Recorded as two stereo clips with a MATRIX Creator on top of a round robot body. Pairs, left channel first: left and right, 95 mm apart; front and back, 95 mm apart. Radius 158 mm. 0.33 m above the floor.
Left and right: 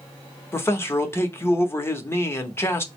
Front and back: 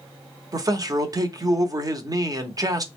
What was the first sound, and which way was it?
A man speaking, 145° left.